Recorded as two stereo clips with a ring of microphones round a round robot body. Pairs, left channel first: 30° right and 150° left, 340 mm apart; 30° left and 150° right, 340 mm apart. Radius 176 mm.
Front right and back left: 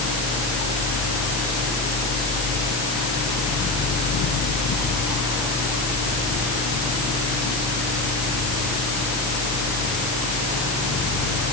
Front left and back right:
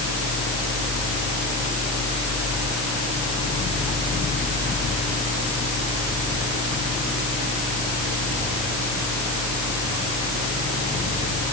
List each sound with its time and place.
Only background noise.